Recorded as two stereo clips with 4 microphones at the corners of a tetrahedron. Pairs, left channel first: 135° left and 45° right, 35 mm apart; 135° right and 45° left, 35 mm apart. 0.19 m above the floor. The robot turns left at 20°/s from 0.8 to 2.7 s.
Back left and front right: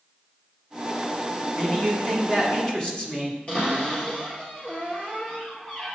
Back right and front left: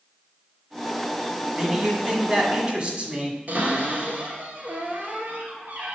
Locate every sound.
1.6 s a man speaking: 110° left, 1.6 m; by 3.4 s 85° left, 1.6 m
3.5 s a cupboard door: 80° left, 2 m